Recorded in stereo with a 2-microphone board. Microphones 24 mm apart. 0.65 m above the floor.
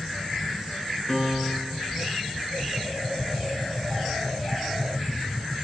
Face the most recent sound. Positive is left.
turn(degrees=30)  # may be behind; listen again after turning